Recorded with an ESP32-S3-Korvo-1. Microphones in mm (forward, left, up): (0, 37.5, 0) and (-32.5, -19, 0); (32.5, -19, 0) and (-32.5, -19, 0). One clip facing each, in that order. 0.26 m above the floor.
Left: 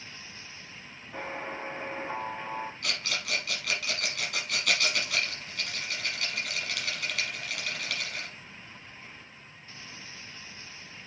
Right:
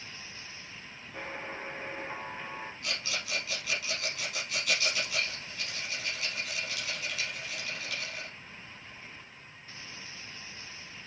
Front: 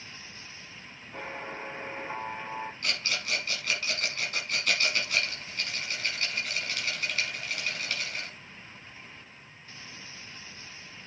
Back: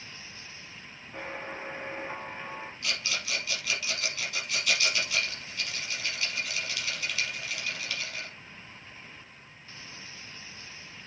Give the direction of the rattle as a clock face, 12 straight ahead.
10 o'clock.